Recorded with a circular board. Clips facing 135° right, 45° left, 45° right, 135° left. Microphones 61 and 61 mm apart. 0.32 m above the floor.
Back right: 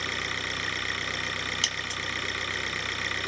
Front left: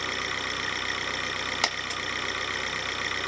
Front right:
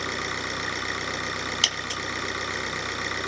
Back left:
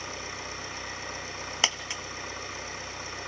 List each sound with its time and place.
0.0 s an engine running: 45° right, 2.5 m
1.6 s a dropped coin: 75° left, 1.1 m